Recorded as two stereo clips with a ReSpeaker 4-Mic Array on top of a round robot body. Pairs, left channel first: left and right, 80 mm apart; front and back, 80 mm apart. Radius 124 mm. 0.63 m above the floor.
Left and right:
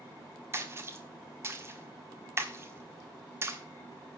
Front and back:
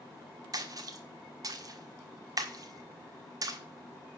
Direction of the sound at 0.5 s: 145° right.